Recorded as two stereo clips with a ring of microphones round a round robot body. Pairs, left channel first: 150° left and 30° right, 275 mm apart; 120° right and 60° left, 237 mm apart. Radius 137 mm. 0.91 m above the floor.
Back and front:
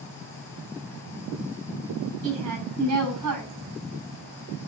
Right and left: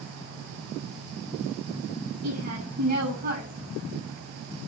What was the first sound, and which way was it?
A woman speaking, straight ahead.